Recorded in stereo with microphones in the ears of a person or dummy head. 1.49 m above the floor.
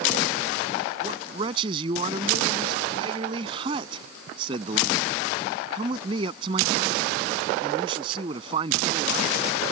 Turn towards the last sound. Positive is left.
turn(degrees=-30)  # may be behind; listen again after turning